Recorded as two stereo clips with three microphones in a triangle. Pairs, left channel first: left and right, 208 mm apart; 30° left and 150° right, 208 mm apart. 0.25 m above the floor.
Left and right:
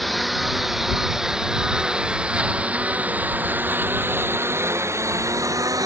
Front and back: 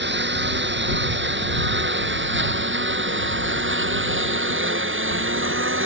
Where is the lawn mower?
Straight behind; by 5.9 s 165° right.